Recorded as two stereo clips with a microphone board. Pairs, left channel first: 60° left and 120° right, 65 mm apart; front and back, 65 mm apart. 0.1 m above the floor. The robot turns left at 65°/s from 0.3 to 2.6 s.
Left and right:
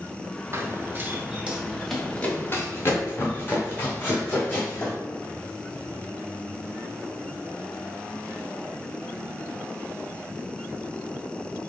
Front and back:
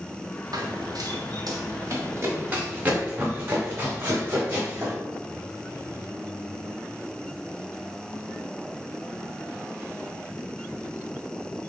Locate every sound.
0.5 s running footsteps: 170° right, 0.9 m; by 4.9 s 125° left, 4 m